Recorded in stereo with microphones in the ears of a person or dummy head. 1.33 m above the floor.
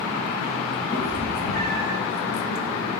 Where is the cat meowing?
65° left (ahead or behind), 3.5 m; by 2.0 s 55° left (ahead or behind), 4 m.